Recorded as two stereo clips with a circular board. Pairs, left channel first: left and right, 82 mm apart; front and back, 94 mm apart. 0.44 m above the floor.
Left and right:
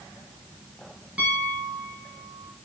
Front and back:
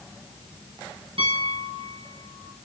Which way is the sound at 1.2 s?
165° right.